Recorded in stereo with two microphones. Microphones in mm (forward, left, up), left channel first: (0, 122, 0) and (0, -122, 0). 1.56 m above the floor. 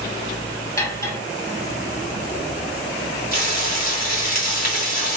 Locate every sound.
0.8 s cutlery clinking: 15° left (ahead or behind), 1.6 m
3.3 s frying: 40° left (ahead or behind), 2 m